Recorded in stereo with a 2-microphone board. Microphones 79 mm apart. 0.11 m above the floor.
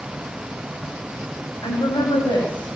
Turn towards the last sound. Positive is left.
turn(degrees=65)  # may be behind; listen again after turning